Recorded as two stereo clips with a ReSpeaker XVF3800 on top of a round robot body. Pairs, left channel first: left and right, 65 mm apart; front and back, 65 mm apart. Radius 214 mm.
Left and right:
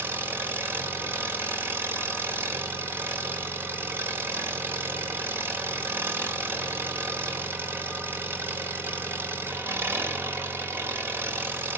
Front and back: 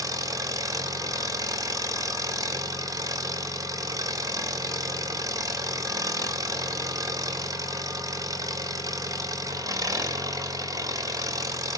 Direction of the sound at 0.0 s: 145° right.